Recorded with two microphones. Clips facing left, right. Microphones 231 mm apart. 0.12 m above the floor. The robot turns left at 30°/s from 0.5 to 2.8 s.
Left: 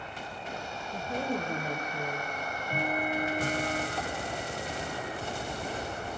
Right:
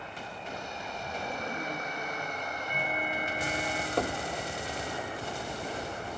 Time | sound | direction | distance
0.9 | a woman speaking | 130° left | 6 m
2.4 | ticking | 50° left (ahead or behind) | 2.0 m
4.0 | knocking | 65° right (ahead or behind) | 2.5 m